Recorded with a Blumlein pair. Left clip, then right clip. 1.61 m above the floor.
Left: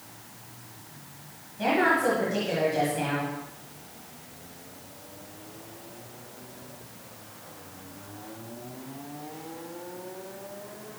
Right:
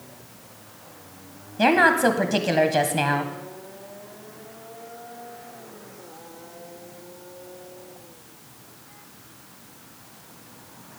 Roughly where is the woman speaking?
Ahead right.